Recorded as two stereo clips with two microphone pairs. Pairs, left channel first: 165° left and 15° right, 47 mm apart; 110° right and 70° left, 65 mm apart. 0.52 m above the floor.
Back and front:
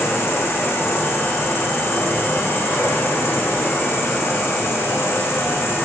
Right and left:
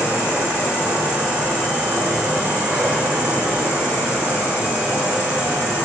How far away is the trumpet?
I don't hear a trumpet.